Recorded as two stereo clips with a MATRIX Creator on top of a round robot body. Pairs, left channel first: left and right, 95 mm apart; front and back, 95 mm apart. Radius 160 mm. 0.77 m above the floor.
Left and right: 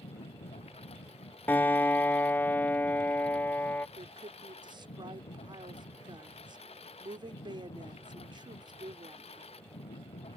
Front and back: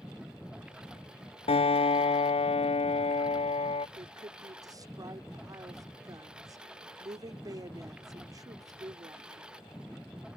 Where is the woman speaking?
130° right.